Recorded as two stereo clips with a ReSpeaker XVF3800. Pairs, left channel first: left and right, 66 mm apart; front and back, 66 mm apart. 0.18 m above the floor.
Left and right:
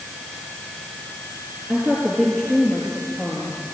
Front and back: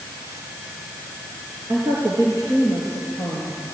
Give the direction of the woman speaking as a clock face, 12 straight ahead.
5 o'clock.